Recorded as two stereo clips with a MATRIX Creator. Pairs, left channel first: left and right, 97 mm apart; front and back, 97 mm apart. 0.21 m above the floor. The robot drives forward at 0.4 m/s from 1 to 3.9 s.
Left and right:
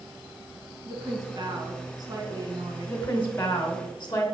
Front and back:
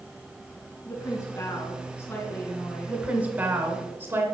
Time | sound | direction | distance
0.8 | a woman speaking | 50° right | 3 m
2.9 | a woman speaking | 120° left | 1.4 m